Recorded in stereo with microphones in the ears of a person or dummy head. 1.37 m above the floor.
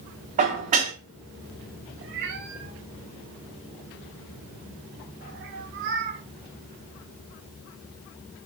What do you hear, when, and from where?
0.4 s dishes clattering: 40° right (ahead or behind), 1.1 m
2.0 s a cat meowing: 45° right (ahead or behind), 1.1 m